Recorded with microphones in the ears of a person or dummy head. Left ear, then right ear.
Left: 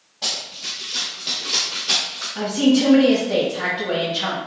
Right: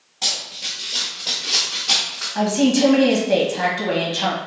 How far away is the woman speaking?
About 1.2 m.